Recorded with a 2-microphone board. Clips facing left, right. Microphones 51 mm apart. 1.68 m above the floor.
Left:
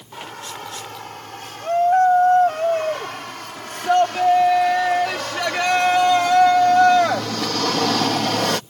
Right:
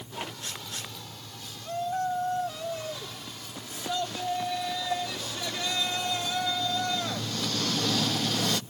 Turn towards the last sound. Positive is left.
turn(degrees=65)  # may be behind; listen again after turning